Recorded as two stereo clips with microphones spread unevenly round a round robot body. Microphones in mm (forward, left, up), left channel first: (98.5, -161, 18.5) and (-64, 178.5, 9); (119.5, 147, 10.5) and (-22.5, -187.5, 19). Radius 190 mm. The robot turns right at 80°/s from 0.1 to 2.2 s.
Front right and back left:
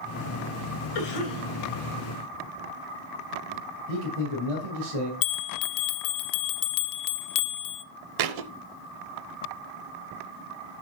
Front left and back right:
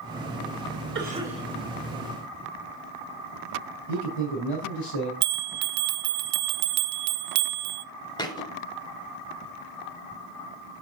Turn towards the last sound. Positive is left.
turn(degrees=145)